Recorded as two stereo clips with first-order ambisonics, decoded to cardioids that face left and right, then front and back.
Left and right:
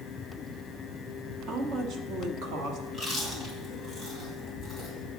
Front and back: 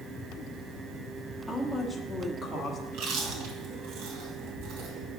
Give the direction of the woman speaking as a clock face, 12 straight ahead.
3 o'clock.